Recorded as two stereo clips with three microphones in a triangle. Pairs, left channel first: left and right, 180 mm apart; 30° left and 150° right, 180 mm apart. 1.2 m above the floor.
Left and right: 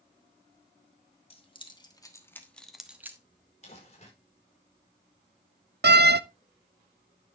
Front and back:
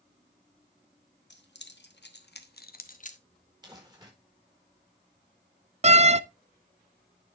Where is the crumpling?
140° left, 5 m.